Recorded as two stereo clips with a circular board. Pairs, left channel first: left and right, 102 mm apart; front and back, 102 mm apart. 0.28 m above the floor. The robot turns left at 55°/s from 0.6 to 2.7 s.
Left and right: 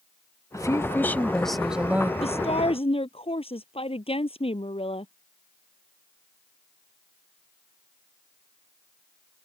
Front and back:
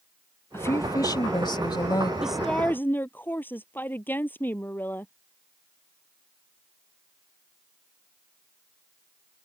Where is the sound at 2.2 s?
100° left; by 5.1 s 70° left.